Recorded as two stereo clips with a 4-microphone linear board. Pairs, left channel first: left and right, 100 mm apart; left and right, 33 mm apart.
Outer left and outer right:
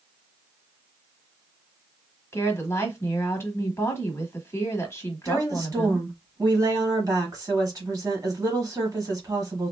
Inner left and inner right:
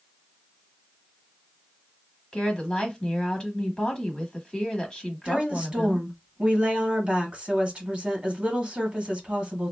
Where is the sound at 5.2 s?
35° right (ahead or behind), 1.5 m.